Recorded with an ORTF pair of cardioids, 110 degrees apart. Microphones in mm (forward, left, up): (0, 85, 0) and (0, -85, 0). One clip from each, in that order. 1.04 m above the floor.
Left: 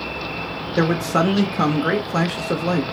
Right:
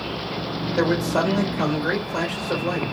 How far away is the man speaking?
About 1.5 m.